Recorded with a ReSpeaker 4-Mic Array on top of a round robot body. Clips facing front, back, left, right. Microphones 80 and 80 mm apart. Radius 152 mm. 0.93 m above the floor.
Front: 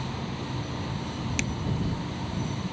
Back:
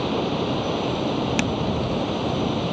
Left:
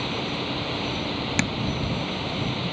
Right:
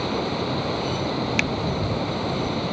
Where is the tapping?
155° left.